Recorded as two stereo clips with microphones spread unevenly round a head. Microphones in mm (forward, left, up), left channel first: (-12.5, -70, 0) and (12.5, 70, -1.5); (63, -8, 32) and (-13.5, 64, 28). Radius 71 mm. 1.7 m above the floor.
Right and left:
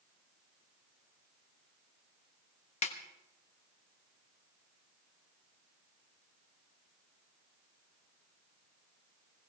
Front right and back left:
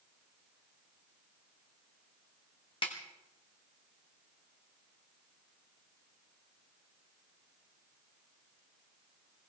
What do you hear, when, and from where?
2.8 s a snare drum: 85° right, 1.3 m